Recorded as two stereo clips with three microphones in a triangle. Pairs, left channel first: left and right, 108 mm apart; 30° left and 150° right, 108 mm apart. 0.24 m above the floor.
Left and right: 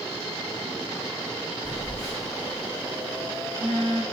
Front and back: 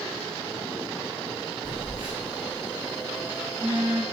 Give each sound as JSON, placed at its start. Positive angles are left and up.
{"t": 1.6, "sound": "a phone buzzing", "azimuth_deg": -85, "distance_m": 1.8}